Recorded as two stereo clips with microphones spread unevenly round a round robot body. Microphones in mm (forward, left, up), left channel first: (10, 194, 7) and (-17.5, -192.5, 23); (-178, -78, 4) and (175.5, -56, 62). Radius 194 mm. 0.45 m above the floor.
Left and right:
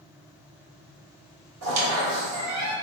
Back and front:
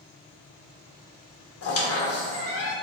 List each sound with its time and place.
1.6 s a squeak: 140° right, 0.7 m